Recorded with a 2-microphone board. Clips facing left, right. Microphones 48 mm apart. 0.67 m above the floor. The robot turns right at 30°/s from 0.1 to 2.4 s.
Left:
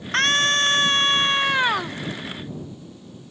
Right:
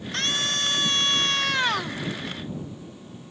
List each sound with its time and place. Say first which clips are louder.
0.1 s a scream: left 8 dB; 115° left; by 2.0 s 170° left